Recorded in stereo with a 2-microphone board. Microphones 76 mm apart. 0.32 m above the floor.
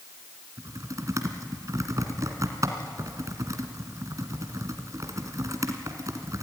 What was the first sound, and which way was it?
Typing on a keyboard, 45° right (ahead or behind).